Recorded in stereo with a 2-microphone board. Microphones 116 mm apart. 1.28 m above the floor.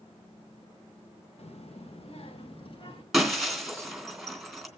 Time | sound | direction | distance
1.4 | a child speaking | 60° left (ahead or behind) | 1.2 m
3.1 | breaking glass | centre (ahead or behind) | 3 m